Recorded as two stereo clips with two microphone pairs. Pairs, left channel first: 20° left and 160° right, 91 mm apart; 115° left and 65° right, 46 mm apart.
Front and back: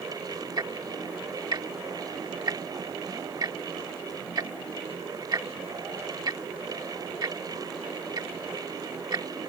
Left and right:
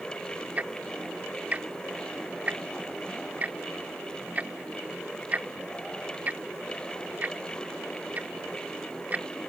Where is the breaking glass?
I don't hear breaking glass.